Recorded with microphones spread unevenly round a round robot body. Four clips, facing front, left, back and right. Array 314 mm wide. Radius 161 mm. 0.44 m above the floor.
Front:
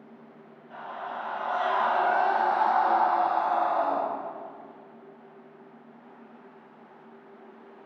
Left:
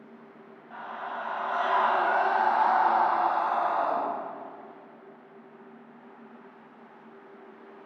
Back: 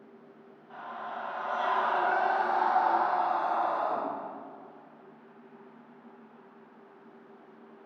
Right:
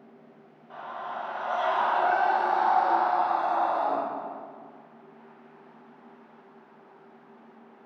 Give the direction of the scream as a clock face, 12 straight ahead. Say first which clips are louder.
Right 1 dB, front 3 dB; 2 o'clock.